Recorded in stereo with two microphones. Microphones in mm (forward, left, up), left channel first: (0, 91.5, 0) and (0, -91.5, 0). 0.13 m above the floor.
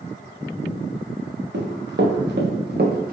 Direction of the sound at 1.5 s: 80° right.